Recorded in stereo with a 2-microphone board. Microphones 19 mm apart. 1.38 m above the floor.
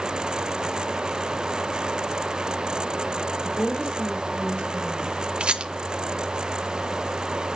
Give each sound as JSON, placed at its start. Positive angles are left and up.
{"t": 3.4, "sound": "a woman speaking", "side_deg": 80, "distance_m": 5.0}
{"t": 5.4, "sound": "a rattle", "side_deg": -55, "distance_m": 0.6}